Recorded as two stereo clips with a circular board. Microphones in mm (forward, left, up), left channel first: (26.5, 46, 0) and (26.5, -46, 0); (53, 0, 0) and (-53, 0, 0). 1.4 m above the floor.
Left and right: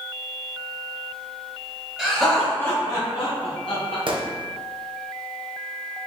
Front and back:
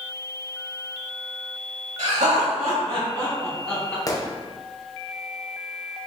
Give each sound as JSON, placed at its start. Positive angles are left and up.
{"t": 2.0, "sound": "laughter", "azimuth_deg": -170, "distance_m": 1.9}
{"t": 4.1, "sound": "a gunshot", "azimuth_deg": -60, "distance_m": 0.6}